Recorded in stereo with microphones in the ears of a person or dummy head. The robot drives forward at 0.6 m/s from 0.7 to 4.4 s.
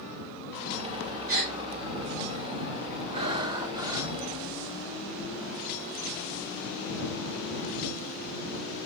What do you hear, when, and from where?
1.3 s a gasp: 50° right (ahead or behind), 3 m; by 1.6 s 55° right (ahead or behind), 3 m
3.1 s breathing: 30° right (ahead or behind), 0.6 m; by 4.2 s 15° right (ahead or behind), 1.2 m